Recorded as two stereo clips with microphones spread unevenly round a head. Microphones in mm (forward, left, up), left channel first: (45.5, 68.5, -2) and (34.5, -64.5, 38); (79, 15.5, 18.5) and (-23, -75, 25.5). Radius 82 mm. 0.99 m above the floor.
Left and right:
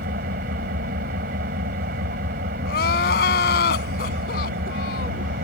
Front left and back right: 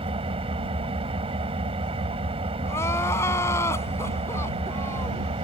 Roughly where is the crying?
Behind left.